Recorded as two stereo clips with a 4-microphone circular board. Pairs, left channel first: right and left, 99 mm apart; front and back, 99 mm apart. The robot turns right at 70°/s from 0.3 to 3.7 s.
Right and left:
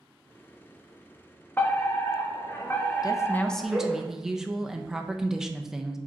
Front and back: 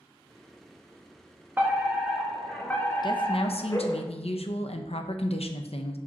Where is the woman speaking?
40° right, 0.7 m; by 6.0 s 5° left, 0.7 m.